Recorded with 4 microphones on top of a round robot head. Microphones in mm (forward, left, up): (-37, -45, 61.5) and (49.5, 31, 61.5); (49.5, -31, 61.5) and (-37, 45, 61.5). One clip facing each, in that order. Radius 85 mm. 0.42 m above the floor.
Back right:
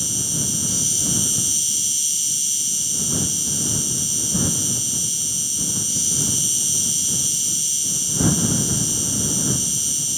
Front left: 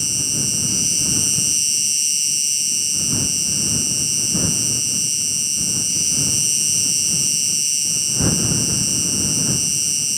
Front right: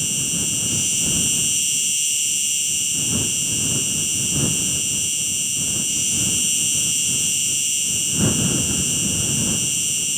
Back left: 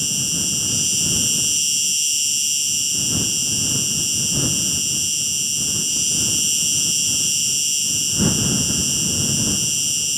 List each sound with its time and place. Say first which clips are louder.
0.0 s an insect: even, even; 150° left